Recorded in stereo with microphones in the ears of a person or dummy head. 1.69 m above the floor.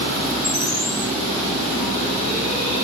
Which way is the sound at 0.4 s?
65° left (ahead or behind).